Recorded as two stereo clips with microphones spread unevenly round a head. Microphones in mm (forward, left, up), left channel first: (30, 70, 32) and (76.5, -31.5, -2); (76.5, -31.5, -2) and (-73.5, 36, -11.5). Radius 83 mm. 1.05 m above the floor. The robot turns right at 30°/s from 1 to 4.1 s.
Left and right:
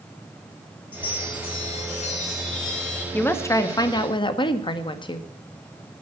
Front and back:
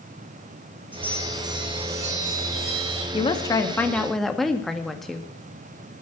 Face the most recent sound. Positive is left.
turn(degrees=65)